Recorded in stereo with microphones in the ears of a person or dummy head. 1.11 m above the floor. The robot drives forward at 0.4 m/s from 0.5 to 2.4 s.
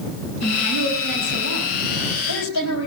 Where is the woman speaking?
85° left, 5.5 m; by 2.9 s 75° left (ahead or behind), 5.5 m.